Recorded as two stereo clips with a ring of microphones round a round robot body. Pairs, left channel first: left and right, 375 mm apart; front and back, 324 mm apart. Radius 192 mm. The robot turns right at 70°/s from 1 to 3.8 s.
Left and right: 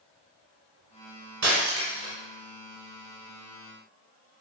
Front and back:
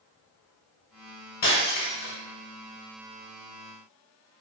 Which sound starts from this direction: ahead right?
Breaking glass, at 1.4 s.